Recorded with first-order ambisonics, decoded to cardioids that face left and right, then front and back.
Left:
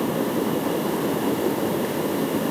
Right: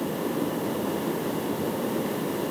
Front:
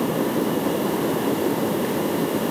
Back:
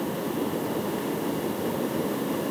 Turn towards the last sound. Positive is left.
No sound to turn to.